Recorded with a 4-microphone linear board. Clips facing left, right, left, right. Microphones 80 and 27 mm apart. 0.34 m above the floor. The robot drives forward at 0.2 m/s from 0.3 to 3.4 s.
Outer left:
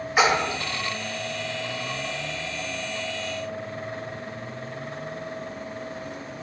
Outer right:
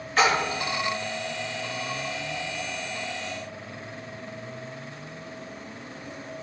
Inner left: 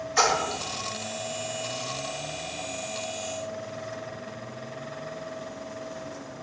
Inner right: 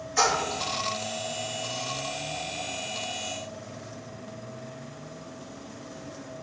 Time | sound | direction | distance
0.2 | a splash | 15° left (ahead or behind) | 0.6 m